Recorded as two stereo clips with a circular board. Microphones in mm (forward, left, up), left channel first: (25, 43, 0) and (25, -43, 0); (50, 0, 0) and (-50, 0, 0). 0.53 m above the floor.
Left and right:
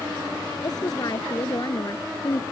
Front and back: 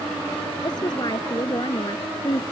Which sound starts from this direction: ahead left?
A woman speaking, at 0.6 s.